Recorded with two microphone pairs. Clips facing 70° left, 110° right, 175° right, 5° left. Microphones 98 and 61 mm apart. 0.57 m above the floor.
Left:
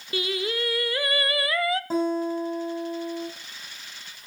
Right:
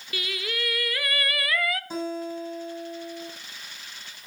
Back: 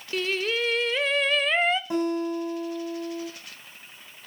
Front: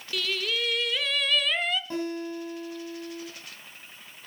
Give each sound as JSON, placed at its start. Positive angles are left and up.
{"t": 0.1, "sound": "singing", "azimuth_deg": 125, "distance_m": 0.6}
{"t": 1.9, "sound": "a guitar", "azimuth_deg": 110, "distance_m": 5.0}